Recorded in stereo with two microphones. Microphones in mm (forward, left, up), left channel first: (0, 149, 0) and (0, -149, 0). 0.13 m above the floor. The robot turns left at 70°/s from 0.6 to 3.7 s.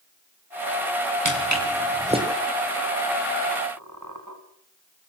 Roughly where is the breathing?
No breathing in this recording.